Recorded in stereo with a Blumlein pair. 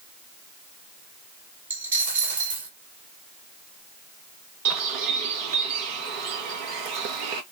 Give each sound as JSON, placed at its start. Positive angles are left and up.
{"t": 1.7, "sound": "a dropped coin", "azimuth_deg": -70, "distance_m": 1.1}
{"t": 4.7, "sound": "a bird", "azimuth_deg": -45, "distance_m": 1.1}